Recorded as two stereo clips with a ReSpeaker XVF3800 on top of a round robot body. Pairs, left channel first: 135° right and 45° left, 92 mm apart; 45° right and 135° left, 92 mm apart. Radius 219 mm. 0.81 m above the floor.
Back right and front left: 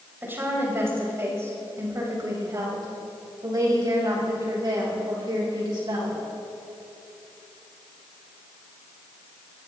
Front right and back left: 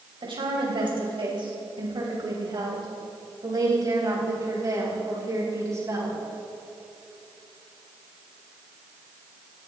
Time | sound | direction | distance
0.2 | a woman speaking | 115° left | 6 m